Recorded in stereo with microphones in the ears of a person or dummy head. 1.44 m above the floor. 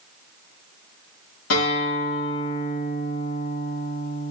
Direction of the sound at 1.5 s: 65° left (ahead or behind).